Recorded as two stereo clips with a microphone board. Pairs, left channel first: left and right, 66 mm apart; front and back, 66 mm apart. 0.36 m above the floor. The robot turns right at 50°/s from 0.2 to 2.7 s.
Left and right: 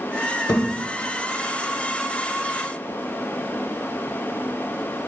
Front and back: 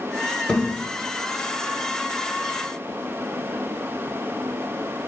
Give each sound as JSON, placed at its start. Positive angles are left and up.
{"t": 0.5, "sound": "a thud", "azimuth_deg": 80, "distance_m": 1.0}